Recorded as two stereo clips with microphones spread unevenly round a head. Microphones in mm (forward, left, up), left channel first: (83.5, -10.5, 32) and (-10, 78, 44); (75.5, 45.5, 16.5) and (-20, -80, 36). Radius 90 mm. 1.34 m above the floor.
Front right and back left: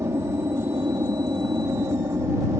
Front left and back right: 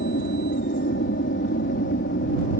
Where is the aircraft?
70° left.